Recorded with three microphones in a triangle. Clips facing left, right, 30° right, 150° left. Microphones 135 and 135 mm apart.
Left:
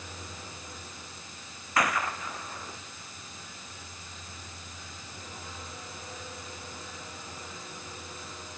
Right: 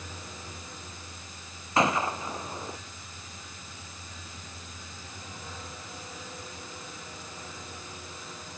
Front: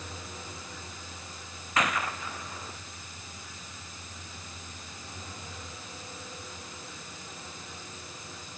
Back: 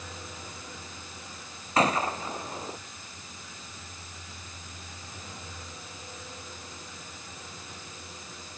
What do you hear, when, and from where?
1.8 s a gunshot: 155° right